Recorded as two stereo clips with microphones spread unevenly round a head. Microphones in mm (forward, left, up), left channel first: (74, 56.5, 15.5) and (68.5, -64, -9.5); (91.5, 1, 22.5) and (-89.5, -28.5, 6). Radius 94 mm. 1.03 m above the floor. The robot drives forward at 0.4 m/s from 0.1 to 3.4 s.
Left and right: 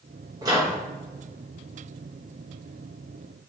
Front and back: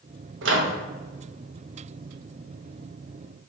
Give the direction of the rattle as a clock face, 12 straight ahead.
I don't hear a rattle.